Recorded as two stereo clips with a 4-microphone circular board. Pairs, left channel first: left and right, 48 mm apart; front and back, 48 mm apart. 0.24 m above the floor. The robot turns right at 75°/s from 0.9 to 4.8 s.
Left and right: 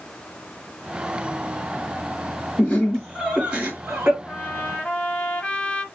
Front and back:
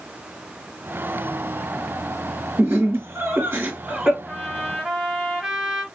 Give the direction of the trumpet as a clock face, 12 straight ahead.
10 o'clock.